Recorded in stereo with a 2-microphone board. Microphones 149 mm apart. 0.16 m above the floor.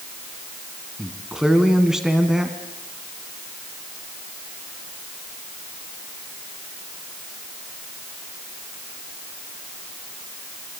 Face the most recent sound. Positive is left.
turn(degrees=-5)  # may be behind; listen again after turning